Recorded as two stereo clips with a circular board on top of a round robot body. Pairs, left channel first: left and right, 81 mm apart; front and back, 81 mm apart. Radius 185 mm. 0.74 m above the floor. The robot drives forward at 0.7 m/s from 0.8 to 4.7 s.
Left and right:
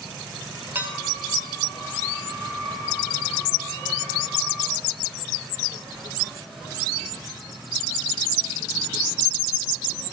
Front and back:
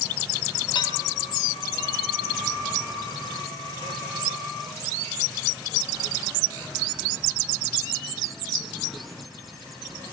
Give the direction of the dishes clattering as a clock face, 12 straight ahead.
1 o'clock.